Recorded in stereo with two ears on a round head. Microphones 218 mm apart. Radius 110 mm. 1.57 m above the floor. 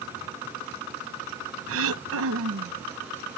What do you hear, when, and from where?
1.7 s throat clearing: 60° right (ahead or behind)